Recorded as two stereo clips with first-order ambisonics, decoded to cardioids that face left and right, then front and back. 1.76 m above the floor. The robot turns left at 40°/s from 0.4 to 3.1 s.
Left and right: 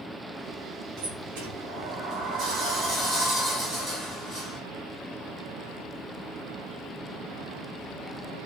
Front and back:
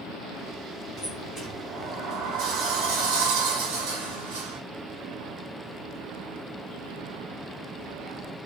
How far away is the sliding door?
About 8 m.